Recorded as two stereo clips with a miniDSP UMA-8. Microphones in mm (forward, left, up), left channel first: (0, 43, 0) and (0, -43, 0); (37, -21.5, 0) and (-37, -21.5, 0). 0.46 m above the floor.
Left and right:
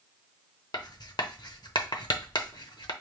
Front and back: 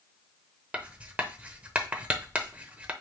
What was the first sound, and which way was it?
Writing, 110° left.